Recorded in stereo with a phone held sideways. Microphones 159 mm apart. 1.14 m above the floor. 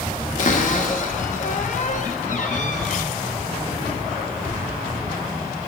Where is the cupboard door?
50° left (ahead or behind), 0.9 m.